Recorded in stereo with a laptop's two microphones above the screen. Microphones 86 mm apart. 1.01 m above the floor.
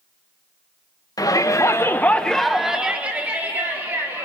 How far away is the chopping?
I don't hear chopping.